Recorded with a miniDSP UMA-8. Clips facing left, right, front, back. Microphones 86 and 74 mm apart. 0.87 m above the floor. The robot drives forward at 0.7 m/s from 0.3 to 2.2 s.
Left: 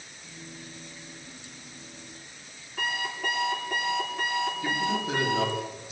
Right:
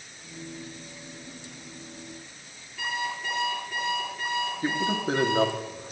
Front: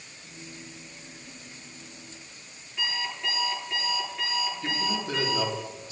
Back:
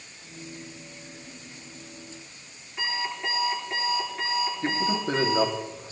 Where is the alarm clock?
115° left, 9 m.